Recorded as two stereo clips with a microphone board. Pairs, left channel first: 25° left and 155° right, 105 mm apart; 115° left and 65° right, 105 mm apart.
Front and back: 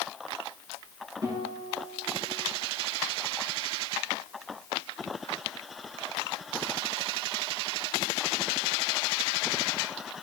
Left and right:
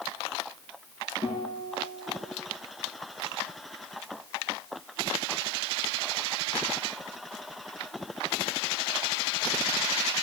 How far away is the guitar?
About 4.5 m.